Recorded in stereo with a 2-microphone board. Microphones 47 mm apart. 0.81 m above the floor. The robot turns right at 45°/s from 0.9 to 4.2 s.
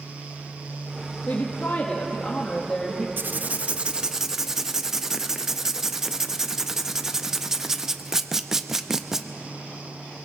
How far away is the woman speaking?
About 1.4 m.